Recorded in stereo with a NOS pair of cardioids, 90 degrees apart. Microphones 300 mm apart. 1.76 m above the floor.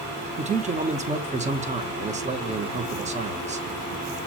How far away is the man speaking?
About 1.0 m.